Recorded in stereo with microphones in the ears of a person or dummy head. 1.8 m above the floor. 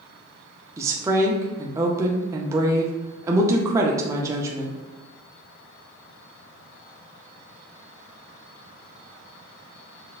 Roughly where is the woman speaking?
Centre.